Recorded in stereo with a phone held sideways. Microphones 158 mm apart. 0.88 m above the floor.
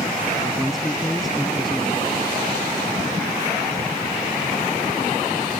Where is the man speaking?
Centre (ahead or behind).